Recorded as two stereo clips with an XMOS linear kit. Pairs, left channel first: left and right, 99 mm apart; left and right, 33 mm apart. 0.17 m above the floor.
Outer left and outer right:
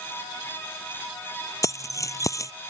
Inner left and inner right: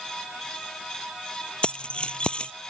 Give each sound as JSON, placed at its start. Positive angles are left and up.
{"t": 1.6, "sound": "keys jangling", "side_deg": 35}